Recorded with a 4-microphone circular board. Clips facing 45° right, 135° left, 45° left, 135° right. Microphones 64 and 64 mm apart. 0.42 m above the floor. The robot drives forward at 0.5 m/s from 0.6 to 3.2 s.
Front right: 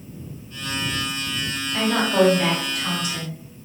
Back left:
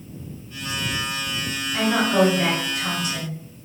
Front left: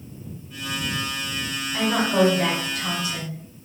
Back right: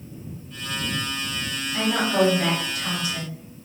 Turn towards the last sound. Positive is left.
turn(degrees=100)